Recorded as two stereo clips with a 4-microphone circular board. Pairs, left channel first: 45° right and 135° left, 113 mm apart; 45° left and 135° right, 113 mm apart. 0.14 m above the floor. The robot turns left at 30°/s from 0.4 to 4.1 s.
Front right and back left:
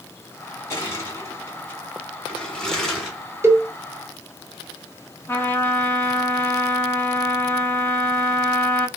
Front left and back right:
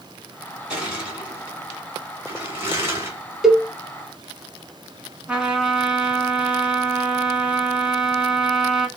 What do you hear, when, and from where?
0.7 s crushing: 60° right, 1.7 m; by 3.2 s 135° right, 1.7 m
3.4 s a cowbell: 145° left, 0.6 m; by 3.7 s 140° left, 0.6 m
5.3 s a trumpet: 65° right, 0.9 m